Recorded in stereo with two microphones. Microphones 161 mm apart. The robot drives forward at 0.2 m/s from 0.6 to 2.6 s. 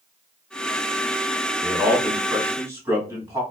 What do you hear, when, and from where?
1.6 s a man speaking: 15° right (ahead or behind), 1.7 m